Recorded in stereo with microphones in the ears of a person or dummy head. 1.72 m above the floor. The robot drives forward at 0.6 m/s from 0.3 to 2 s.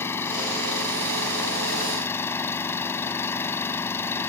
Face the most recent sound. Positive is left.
turn(degrees=15)  # may be behind; listen again after turning